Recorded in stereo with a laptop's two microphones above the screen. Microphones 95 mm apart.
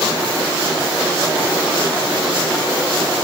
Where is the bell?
No bell in this recording.